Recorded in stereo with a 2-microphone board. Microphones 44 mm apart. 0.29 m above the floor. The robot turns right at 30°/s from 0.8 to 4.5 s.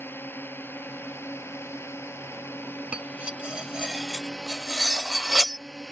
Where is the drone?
60° left; by 5.9 s 170° left.